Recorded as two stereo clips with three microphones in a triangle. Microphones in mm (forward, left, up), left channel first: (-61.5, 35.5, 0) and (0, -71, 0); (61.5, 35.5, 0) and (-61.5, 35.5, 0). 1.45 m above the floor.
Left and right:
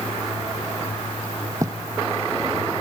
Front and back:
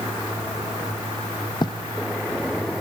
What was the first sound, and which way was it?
Writing, 20° right.